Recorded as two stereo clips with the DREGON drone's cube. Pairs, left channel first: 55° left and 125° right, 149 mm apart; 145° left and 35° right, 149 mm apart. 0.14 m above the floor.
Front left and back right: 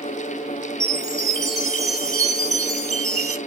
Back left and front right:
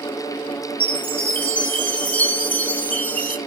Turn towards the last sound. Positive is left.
turn(degrees=-155)